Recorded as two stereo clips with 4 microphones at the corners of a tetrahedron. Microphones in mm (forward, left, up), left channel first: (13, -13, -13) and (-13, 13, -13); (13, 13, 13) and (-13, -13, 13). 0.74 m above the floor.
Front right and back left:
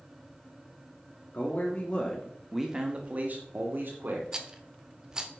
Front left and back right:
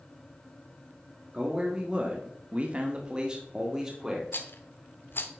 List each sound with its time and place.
1.3 s a man speaking: 70° right, 1.7 m; by 4.2 s 145° left, 2.5 m
4.3 s a rattle: 65° left, 1.0 m